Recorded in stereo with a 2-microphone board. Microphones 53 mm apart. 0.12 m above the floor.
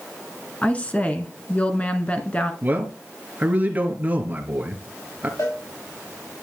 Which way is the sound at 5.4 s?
80° left.